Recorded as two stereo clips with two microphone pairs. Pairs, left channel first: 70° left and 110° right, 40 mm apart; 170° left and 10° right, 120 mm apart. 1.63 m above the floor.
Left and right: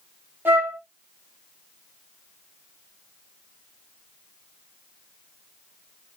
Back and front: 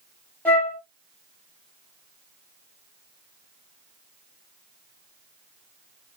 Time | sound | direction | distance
0.5 | a flute | 115° right | 1.2 m